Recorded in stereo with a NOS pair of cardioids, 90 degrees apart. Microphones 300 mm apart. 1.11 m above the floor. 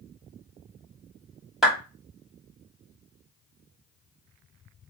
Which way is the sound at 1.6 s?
Straight ahead.